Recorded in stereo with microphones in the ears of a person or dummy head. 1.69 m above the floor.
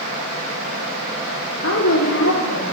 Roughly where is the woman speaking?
Left.